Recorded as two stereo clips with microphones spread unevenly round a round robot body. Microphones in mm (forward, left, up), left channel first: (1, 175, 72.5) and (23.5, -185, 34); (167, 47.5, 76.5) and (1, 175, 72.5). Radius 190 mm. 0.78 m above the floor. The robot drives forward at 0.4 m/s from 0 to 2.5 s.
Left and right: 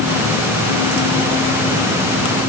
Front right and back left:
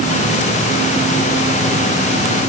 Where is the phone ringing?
I don't hear a phone ringing.